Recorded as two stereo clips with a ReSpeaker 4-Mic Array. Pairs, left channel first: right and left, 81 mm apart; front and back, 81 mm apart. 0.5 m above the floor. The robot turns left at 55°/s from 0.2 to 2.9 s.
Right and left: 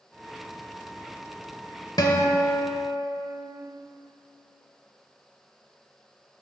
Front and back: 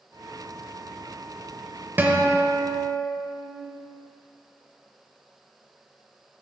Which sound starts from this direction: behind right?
A guitar, at 2.0 s.